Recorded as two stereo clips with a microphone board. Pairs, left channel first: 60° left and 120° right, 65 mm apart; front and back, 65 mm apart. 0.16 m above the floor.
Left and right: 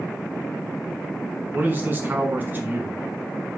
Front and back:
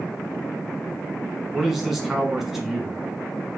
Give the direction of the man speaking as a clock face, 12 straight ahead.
3 o'clock.